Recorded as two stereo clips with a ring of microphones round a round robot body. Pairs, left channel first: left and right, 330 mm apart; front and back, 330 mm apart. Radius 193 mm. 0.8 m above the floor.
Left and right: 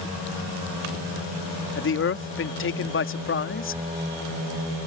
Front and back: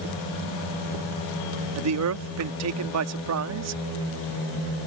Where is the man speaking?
140° left.